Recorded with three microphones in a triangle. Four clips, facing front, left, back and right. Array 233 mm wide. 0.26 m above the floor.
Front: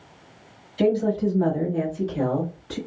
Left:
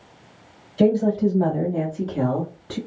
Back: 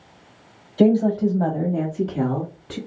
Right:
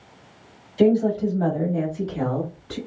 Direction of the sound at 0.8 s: 175° right.